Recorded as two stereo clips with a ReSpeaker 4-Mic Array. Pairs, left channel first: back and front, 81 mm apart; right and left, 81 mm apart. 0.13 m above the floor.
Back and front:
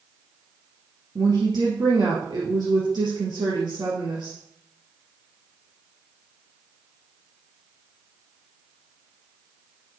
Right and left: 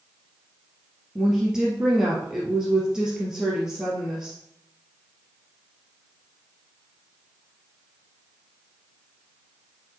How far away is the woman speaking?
About 3 m.